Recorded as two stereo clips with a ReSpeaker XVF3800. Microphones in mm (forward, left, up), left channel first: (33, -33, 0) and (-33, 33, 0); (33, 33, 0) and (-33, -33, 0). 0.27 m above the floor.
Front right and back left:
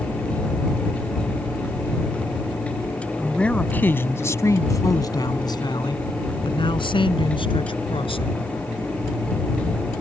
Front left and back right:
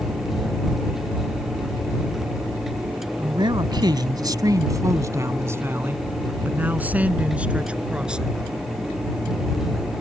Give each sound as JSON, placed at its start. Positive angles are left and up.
{"t": 3.2, "sound": "a man speaking", "azimuth_deg": -125}